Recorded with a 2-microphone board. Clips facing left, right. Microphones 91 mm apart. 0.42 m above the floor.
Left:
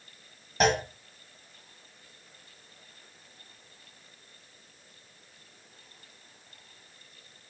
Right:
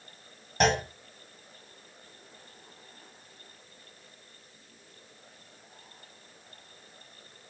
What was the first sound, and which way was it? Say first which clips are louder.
A clunk: even; centre (ahead or behind).